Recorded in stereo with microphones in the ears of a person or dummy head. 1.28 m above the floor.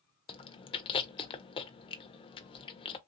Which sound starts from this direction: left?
Chewing, at 0.3 s.